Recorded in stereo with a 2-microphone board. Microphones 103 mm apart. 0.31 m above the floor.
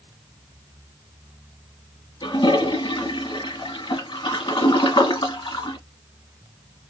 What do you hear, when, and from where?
2.2 s a toilet flushing: 55° left (ahead or behind), 1.3 m